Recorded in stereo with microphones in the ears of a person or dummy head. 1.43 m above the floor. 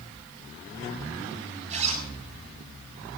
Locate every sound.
1.7 s a zipper: 35° right (ahead or behind), 7 m